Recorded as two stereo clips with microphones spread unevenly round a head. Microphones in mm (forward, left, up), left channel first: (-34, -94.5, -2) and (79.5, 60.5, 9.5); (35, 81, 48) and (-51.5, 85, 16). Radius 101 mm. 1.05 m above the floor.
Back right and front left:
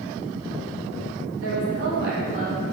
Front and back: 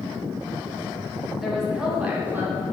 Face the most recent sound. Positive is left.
turn(degrees=120)